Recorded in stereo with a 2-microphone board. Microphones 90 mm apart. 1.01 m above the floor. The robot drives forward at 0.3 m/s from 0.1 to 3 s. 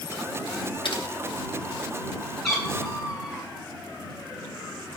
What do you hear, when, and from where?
0.8 s typing on a keyboard: 60° left (ahead or behind), 0.8 m; by 1.0 s 65° left (ahead or behind), 0.8 m
2.4 s a cat meowing: centre (ahead or behind), 1.6 m